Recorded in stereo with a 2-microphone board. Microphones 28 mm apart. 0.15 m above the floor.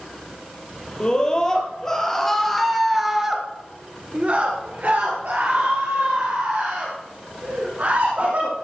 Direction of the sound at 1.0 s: 25° left (ahead or behind).